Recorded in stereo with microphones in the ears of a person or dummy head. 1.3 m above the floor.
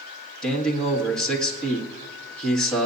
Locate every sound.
0.4 s a man speaking: 5° left (ahead or behind), 2.0 m